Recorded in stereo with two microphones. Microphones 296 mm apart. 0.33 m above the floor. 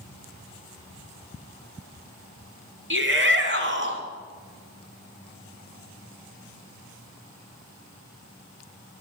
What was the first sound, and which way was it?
A shout, 40° right (ahead or behind).